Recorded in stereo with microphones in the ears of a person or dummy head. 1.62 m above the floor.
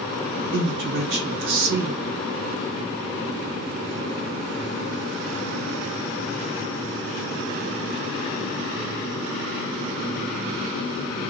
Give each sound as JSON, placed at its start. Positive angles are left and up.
{"t": 0.5, "sound": "a man speaking", "side_deg": -80, "distance_m": 1.9}